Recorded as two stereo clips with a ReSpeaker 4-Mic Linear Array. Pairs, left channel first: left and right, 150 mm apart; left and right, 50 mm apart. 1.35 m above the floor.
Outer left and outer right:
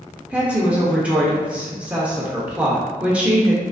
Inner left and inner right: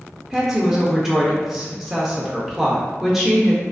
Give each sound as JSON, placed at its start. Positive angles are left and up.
{"t": 0.3, "sound": "a woman speaking", "side_deg": -10, "distance_m": 0.6}